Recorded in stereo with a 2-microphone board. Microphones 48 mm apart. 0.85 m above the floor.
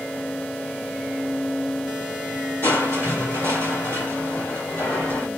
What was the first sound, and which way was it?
Crushing, 60° left (ahead or behind).